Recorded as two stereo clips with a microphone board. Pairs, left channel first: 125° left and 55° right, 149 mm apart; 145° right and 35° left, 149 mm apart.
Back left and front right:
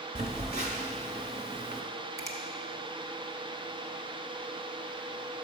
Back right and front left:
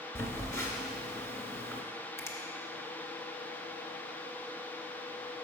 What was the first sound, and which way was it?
A phone buzzing, 75° right.